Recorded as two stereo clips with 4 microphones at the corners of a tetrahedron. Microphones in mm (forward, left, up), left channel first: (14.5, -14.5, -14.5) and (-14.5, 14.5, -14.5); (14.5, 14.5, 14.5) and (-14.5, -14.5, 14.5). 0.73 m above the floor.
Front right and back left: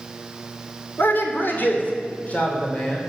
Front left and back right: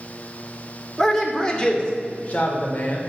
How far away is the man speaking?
About 2.5 m.